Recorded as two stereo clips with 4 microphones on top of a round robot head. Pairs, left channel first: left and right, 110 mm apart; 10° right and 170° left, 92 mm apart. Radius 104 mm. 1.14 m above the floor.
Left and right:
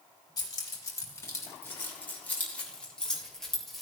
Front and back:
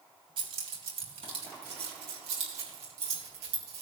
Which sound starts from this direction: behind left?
Keys jangling, at 0.4 s.